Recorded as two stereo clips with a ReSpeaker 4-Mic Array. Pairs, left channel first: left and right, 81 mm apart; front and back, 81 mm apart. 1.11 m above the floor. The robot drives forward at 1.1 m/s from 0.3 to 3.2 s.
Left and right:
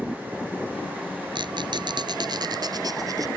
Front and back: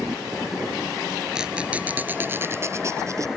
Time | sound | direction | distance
1.4 | a squeak | 100° right | ?